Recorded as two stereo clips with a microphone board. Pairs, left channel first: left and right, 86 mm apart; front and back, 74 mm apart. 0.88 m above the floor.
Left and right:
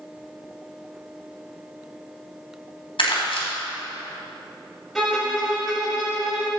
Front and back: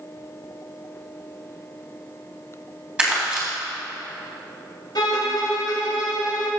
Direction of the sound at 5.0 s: Straight ahead.